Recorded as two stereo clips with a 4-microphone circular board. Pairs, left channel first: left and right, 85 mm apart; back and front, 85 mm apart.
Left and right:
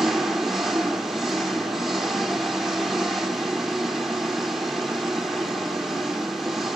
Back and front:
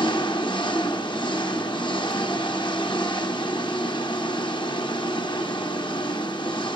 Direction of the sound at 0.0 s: 175° right.